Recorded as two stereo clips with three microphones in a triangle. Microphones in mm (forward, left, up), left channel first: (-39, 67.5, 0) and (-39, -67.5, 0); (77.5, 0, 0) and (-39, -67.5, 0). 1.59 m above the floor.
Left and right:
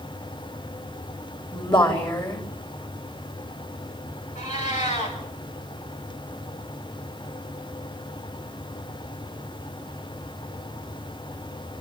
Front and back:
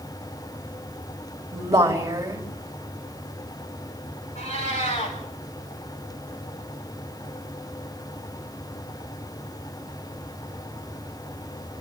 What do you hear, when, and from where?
1.5 s a woman speaking: 145° left, 3 m
4.3 s a cat meowing: 60° left, 6.5 m